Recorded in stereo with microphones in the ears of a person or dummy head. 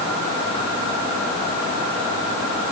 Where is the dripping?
I don't hear dripping.